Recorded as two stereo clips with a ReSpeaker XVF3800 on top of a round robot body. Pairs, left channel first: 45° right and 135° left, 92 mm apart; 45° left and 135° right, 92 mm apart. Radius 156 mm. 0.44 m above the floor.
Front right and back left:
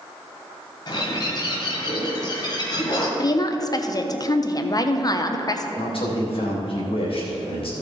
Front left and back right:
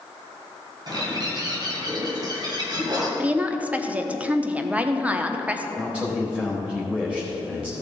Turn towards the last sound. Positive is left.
turn(degrees=-60)